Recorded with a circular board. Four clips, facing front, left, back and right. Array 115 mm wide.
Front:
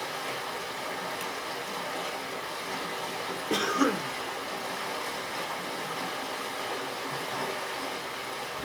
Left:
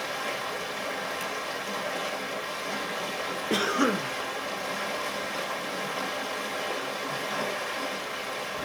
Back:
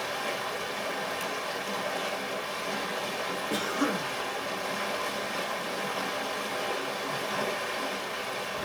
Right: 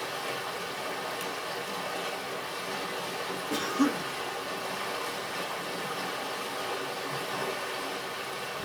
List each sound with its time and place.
0.0 s running water: 135° left, 1.6 m
3.5 s a cough: 65° left, 0.9 m